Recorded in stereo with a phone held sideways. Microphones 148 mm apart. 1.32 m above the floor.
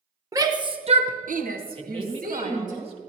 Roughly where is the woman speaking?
Right.